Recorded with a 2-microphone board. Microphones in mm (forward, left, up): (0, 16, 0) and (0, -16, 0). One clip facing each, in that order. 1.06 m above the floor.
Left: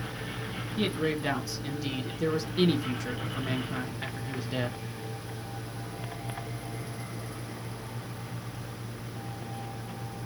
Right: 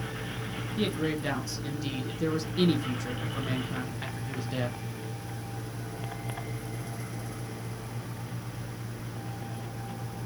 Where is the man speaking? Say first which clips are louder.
Left 1 dB; 5° left (ahead or behind), 0.6 m.